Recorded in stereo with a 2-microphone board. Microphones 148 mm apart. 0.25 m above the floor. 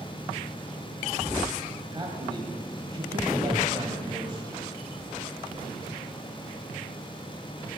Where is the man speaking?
30° right (ahead or behind), 1.6 m.